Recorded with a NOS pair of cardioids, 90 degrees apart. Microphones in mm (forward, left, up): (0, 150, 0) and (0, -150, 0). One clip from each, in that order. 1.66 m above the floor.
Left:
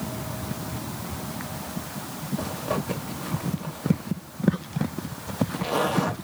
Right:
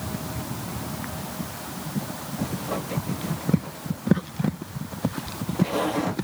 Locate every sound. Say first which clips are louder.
2.4 s a zipper: left 2 dB; 65° left, 1.8 m